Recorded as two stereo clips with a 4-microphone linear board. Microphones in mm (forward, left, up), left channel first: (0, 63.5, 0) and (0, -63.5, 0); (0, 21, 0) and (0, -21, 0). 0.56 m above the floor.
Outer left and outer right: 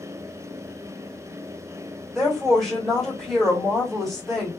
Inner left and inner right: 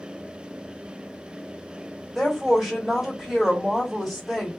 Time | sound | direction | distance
2.1 | a woman speaking | centre (ahead or behind) | 1.7 m